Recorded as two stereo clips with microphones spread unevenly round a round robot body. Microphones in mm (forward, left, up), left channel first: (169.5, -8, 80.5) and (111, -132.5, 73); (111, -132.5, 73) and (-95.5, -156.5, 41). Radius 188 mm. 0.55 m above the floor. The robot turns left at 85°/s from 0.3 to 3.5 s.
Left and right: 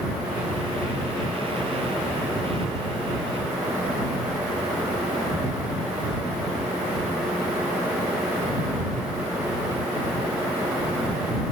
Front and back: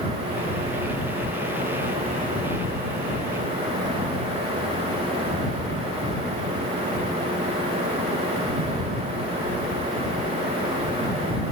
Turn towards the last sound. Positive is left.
No sound to turn to.